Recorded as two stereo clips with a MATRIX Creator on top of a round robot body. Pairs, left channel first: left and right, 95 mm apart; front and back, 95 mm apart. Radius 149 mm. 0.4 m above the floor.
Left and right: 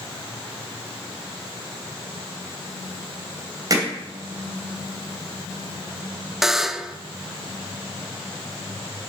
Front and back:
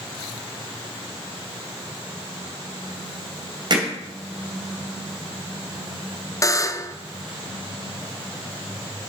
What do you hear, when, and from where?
3.7 s hammering: 140° right, 2.5 m
6.4 s a buzzer: 5° right, 0.7 m